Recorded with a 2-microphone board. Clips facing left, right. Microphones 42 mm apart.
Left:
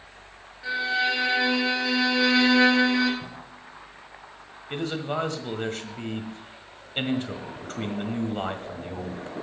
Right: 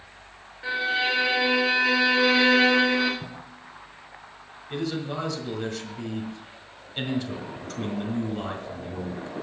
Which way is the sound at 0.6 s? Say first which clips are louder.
Even; 20° right (ahead or behind).